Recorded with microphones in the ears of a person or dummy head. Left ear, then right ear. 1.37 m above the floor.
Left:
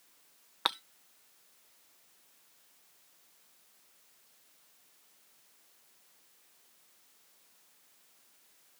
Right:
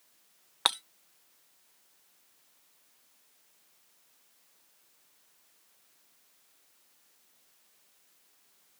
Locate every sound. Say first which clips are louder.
0.7 s breaking glass: right 4 dB; 5° right (ahead or behind)